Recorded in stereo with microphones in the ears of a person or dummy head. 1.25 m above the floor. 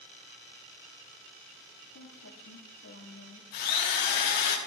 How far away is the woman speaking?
About 2.5 m.